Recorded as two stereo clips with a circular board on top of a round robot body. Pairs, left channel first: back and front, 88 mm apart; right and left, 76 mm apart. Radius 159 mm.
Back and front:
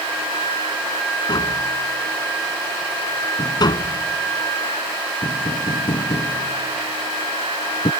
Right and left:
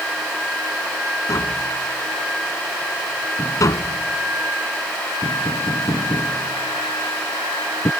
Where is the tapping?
140° right.